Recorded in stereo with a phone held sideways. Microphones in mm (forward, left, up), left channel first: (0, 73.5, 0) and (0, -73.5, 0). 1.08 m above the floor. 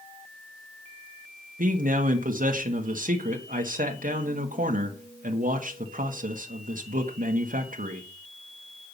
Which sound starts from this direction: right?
A man speaking, at 1.6 s.